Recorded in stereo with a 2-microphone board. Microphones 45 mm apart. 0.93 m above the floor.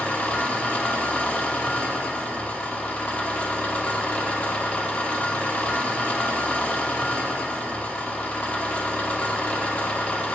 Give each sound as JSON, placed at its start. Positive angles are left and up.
{"t": 0.0, "sound": "an engine running", "side_deg": 35, "distance_m": 1.0}